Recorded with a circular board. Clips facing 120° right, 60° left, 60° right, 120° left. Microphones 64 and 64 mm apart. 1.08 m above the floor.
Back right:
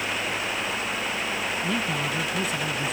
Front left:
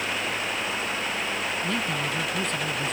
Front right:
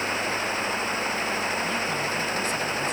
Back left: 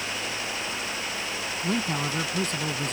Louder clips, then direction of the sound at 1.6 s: Back right 1 dB, front right 1 dB; 160° left.